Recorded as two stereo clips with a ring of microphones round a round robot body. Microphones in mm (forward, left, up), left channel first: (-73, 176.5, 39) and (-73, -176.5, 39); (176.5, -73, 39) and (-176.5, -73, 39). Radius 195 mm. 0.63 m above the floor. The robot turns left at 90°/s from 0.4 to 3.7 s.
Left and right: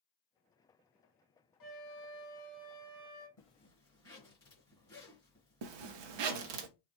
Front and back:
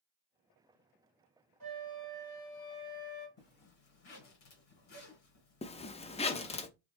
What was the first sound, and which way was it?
A flute, 130° left.